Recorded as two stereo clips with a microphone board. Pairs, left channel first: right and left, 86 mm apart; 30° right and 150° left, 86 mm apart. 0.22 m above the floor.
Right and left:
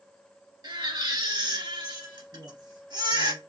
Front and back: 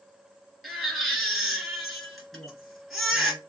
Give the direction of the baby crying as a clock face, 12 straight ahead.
10 o'clock.